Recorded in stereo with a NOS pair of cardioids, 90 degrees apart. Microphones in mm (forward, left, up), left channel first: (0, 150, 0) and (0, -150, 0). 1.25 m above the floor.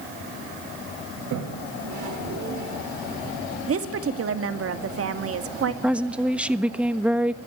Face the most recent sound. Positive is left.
turn(degrees=-5)